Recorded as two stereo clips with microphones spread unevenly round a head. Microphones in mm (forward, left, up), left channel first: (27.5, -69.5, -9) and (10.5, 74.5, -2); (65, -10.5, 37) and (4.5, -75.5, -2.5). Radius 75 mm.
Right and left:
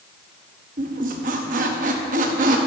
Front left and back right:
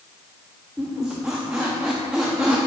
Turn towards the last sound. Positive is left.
turn(degrees=135)